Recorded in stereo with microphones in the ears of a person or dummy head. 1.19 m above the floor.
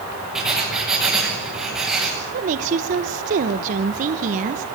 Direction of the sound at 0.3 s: Centre (ahead or behind).